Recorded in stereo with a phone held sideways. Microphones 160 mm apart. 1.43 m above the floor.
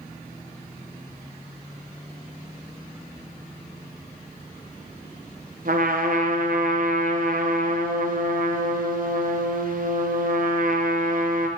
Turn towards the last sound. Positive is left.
turn(degrees=-60)  # may be behind; listen again after turning